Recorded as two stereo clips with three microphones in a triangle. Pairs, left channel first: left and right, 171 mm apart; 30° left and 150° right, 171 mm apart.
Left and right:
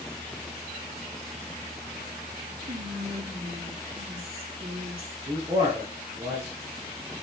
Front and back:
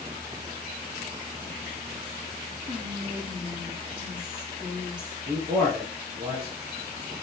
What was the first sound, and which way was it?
Whispering, 120° right.